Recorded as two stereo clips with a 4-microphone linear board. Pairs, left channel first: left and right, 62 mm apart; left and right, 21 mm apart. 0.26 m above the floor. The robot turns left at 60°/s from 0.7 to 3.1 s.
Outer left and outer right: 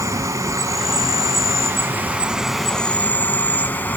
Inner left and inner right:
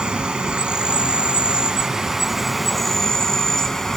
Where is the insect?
65° right, 1.0 m; by 4.0 s 150° left, 1.0 m.